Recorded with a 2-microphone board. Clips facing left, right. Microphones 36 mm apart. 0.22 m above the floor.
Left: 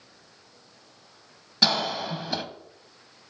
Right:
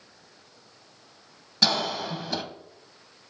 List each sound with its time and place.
1.6 s a cough: 5° left (ahead or behind), 1.0 m